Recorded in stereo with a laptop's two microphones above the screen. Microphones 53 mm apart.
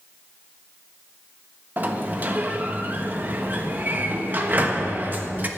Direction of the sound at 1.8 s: 35° right (ahead or behind).